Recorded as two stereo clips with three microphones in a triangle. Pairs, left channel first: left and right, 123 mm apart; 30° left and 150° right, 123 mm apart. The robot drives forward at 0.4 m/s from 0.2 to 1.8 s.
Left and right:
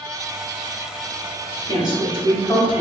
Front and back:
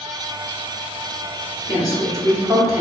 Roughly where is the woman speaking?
Right.